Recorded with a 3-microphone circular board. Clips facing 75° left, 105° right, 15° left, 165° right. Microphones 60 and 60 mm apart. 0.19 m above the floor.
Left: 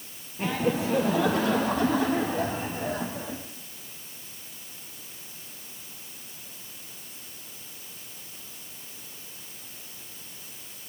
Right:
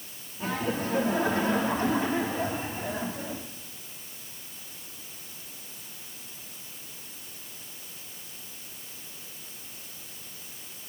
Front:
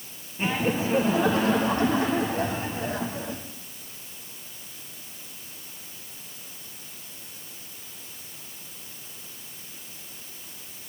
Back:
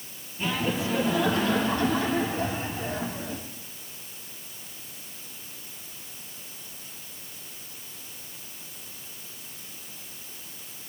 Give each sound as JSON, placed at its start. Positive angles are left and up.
{"t": 0.4, "sound": "laughter", "azimuth_deg": 70, "distance_m": 4.0}